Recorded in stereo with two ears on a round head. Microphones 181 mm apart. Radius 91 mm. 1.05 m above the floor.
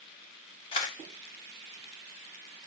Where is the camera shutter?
25° left (ahead or behind), 0.6 m.